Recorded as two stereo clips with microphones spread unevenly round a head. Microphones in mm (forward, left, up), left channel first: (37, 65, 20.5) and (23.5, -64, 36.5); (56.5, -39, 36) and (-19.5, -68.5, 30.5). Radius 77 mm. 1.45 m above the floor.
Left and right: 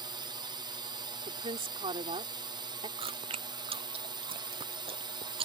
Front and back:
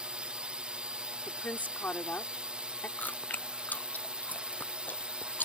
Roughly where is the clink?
No clink in this recording.